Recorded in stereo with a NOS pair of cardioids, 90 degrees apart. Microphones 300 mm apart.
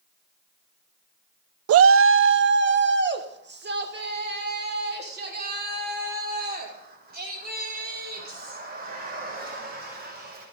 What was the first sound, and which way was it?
A shout, 55° right.